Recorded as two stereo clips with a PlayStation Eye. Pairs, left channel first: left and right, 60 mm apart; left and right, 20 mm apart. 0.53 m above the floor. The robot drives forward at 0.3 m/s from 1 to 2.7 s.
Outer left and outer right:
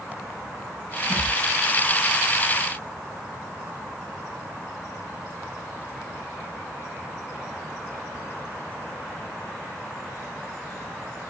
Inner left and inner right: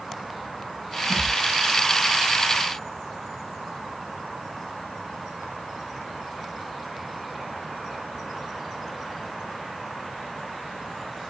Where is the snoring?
I don't hear snoring.